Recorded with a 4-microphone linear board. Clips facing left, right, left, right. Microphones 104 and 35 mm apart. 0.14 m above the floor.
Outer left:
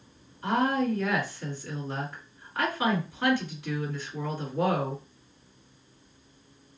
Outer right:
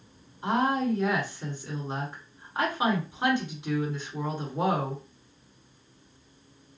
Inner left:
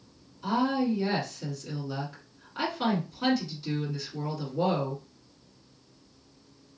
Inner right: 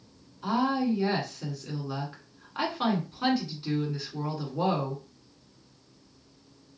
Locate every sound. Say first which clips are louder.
0.4 s a woman speaking: even, even; 20° right (ahead or behind), 1.4 m